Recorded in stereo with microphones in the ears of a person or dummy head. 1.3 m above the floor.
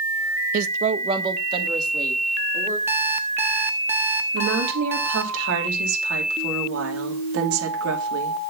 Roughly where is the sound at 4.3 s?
Right.